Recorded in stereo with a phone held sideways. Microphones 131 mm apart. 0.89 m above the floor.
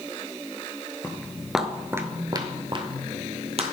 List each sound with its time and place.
1.0 s footsteps: 15° left (ahead or behind), 0.9 m; by 3.6 s 50° right (ahead or behind), 1.5 m